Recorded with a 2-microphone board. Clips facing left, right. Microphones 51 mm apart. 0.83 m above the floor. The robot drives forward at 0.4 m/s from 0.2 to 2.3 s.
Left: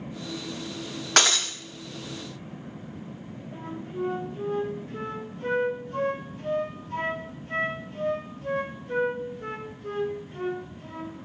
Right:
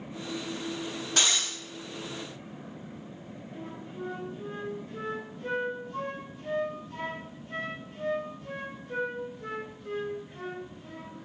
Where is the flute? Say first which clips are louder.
Left 7 dB; 50° left (ahead or behind), 1.4 m.